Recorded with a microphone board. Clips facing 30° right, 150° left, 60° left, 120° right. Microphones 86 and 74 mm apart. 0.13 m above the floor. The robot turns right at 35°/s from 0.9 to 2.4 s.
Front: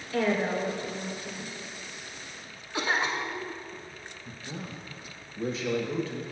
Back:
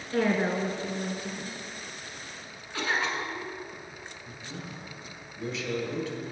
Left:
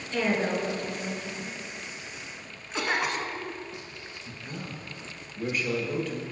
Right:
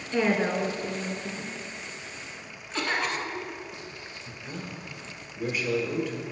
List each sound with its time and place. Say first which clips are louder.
0.1 s a woman speaking: back 1 dB, right 2 dB; 175° right, 1.9 m; by 1.6 s 150° right, 1.9 m
2.7 s a cough: front 1 dB, left 1 dB; straight ahead, 1.3 m
4.2 s a man speaking: front 3 dB, even; 30° right, 1.3 m